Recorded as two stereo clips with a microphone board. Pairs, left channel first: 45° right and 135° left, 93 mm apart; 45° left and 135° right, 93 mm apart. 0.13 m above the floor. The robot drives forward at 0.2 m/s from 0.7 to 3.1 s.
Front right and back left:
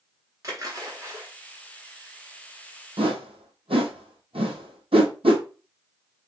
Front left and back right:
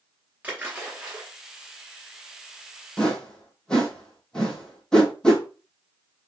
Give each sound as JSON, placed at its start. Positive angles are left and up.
{"t": 0.4, "sound": "a splash", "azimuth_deg": 160, "distance_m": 1.6}
{"t": 3.0, "sound": "a whoosh", "azimuth_deg": 125, "distance_m": 0.9}